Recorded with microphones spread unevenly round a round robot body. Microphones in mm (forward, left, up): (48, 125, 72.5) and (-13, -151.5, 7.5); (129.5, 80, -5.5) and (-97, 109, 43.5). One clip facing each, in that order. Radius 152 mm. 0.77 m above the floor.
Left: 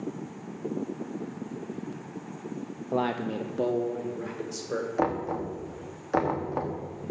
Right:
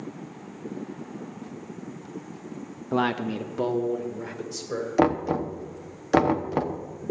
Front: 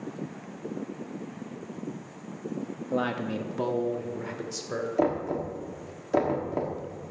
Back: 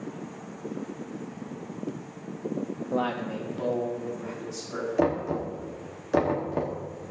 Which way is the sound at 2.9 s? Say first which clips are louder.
Right 3 dB, front 2 dB; 85° right.